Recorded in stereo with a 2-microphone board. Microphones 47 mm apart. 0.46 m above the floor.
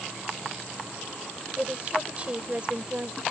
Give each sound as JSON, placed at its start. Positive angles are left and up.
{"t": 1.6, "sound": "a woman speaking", "side_deg": -30}